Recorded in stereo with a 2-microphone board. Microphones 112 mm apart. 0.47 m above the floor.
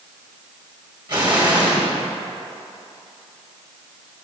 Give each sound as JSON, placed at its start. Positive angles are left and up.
{"t": 1.1, "sound": "an explosion", "side_deg": -40, "distance_m": 1.6}